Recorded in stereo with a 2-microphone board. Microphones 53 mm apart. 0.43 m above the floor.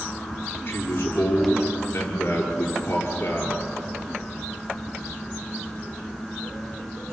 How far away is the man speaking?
About 7 m.